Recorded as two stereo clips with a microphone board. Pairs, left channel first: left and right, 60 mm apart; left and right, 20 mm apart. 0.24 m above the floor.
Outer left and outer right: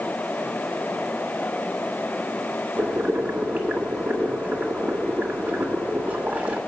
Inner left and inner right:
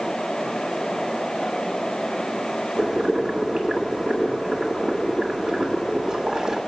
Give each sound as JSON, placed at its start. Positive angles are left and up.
{"t": 2.8, "sound": "boiling", "side_deg": -25, "distance_m": 1.5}